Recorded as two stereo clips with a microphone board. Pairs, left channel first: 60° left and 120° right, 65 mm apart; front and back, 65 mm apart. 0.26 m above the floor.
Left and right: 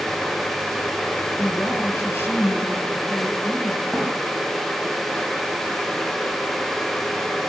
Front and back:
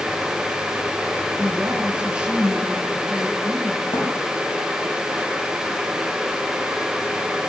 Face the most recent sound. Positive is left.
turn(degrees=-25)